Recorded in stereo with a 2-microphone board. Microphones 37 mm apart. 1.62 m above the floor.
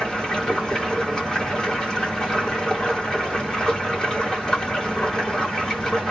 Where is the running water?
15° left (ahead or behind), 2.5 m.